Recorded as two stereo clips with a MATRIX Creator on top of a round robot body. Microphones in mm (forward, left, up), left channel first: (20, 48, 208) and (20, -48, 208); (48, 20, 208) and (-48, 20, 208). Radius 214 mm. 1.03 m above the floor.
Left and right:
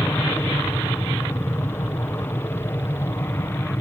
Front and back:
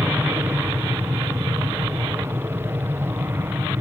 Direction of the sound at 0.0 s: 135° left.